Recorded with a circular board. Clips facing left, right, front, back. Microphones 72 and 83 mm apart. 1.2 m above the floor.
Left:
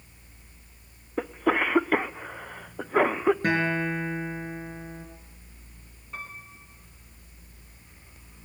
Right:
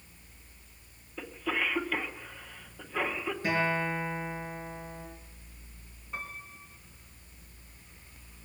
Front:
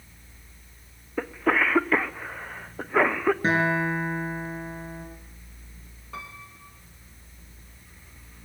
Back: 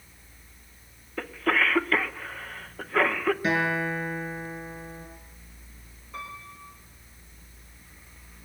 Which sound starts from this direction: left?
A cough, at 1.2 s.